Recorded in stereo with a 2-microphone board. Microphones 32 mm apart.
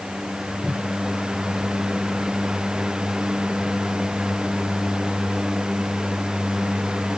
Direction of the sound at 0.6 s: 35° right (ahead or behind).